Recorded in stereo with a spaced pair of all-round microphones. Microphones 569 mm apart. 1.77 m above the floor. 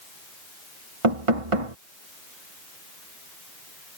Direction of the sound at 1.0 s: 65° right (ahead or behind).